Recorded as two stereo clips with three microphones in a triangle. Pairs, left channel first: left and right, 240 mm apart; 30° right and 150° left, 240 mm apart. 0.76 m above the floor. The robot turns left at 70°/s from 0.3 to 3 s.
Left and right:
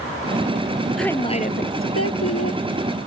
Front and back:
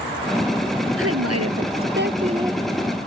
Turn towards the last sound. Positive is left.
turn(degrees=40)